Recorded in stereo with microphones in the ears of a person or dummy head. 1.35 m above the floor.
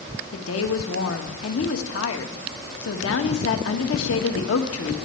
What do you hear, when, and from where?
0.3 s a woman speaking: 85° left, 1.6 m